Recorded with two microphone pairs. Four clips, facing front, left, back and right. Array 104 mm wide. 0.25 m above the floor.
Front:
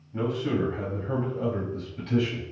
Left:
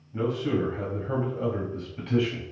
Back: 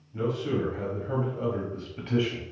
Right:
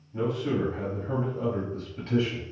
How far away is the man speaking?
About 1.4 m.